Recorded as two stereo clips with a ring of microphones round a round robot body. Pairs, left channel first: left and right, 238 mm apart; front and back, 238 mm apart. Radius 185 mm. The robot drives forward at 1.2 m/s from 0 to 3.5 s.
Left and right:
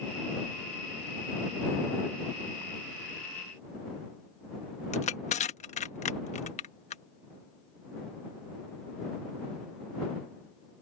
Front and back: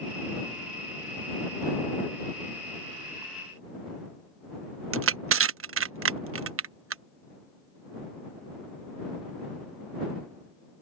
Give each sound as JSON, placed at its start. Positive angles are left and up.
{"t": 4.9, "sound": "crushing", "azimuth_deg": 155}